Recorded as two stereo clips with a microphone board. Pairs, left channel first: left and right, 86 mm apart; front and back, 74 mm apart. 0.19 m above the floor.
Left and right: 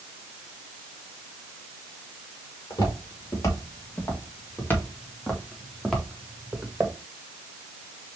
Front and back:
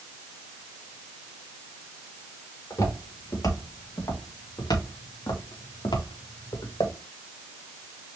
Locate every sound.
2.7 s footsteps: 40° left, 3 m; by 7.0 s 20° right, 1.6 m